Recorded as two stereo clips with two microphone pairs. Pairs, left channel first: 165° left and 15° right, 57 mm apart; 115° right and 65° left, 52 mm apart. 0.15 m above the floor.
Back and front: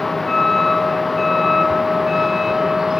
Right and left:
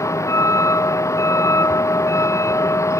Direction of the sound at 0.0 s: 110° right.